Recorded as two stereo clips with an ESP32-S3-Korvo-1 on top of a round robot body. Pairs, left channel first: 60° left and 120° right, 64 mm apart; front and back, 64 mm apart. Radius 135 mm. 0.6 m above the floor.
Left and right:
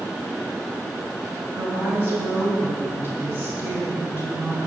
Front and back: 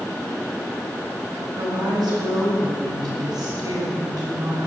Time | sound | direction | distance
1.6 | a woman speaking | straight behind | 5.5 m